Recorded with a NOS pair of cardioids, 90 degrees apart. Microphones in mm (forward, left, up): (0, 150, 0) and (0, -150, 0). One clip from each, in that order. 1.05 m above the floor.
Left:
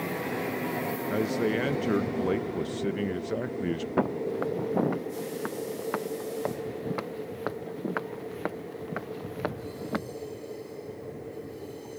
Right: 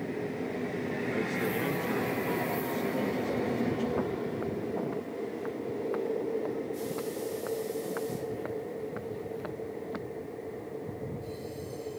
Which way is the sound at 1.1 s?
35° left.